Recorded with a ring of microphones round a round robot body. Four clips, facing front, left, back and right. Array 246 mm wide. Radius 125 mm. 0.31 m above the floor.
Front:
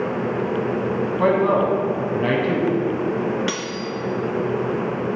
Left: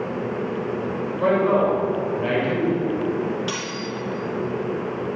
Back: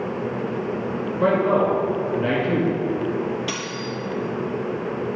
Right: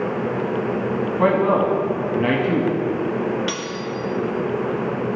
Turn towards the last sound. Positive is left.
turn(degrees=-25)